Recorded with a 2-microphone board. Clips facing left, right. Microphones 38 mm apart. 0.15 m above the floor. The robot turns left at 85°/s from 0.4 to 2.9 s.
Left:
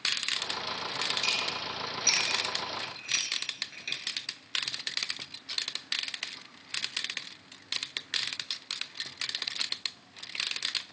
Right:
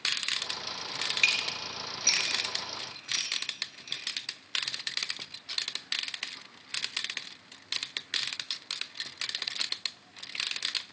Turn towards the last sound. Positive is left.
turn(degrees=55)  # may be behind; listen again after turning